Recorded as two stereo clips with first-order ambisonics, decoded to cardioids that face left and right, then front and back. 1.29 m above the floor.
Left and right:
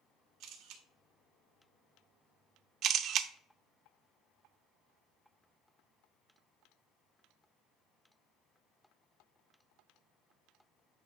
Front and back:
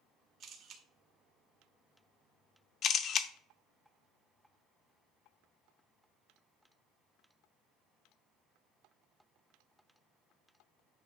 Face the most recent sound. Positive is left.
turn(degrees=-50)